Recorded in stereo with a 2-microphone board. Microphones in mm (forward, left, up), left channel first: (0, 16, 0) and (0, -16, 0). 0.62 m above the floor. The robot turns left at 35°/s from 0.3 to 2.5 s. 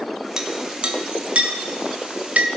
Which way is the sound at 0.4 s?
20° right (ahead or behind).